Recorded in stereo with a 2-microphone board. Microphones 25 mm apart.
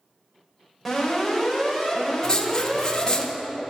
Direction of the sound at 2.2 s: 25° left (ahead or behind).